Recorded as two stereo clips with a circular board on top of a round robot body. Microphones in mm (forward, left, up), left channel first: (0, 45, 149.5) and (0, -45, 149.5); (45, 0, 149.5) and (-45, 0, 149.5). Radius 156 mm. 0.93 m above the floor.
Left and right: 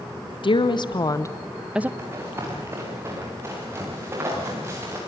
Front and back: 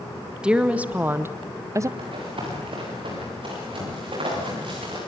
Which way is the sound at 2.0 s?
150° right.